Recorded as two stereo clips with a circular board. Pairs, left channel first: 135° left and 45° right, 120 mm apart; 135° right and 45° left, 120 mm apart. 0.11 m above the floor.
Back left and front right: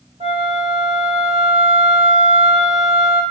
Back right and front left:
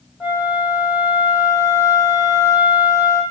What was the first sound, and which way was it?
A flute, 35° right.